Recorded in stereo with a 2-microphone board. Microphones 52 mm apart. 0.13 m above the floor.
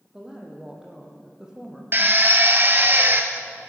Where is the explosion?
I don't hear an explosion.